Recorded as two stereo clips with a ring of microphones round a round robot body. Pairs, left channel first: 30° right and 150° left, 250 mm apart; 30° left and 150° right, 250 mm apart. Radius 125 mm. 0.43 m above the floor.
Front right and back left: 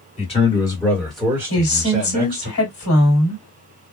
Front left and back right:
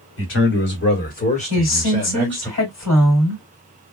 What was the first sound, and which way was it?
A man speaking, 25° left.